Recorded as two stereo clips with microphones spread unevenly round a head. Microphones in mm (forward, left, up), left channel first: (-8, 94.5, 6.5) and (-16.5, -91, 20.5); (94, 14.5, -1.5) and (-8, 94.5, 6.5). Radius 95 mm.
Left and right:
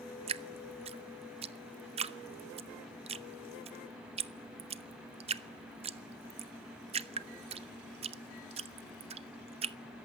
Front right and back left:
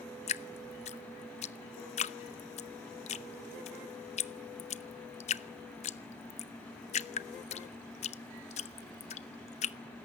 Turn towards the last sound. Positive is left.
turn(degrees=-35)